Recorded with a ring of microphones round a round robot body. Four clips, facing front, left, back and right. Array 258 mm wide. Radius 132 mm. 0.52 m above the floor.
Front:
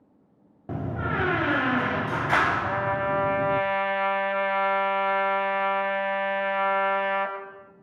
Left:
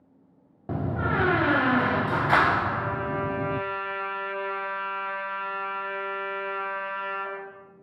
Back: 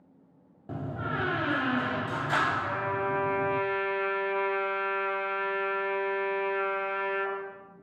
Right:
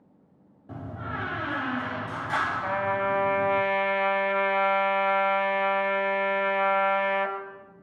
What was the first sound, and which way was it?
A door slam, 70° left.